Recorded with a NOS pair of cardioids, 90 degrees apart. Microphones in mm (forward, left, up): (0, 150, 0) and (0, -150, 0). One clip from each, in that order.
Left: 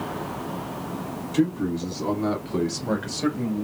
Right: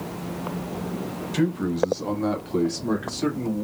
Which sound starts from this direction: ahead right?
A man speaking, at 1.3 s.